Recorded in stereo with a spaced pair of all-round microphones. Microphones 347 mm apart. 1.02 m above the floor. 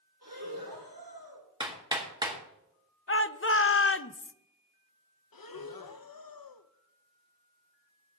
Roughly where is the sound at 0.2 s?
Right.